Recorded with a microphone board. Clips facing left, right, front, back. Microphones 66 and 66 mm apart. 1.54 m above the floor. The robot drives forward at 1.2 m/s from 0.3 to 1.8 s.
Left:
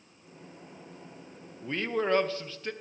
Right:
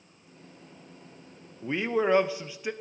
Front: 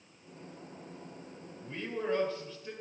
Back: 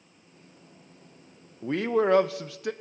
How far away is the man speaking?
About 0.7 m.